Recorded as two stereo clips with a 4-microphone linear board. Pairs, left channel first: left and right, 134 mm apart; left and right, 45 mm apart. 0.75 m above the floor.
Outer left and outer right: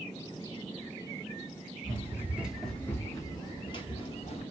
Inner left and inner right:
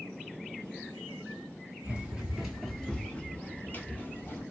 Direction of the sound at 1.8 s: 30° right (ahead or behind).